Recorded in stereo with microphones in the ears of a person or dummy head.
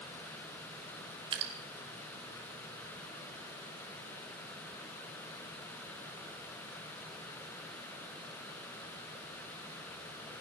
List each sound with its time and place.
1.3 s dripping: 30° right (ahead or behind), 2 m